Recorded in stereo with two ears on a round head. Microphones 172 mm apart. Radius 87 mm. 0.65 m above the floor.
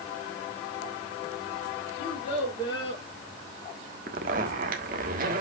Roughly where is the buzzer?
No buzzer in this recording.